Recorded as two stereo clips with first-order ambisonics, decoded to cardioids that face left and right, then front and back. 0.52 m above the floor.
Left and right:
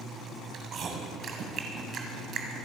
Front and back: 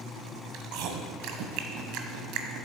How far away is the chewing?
About 1.6 m.